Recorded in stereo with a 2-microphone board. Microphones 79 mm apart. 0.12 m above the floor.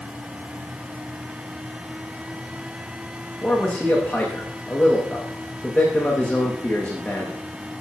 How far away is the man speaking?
About 8 m.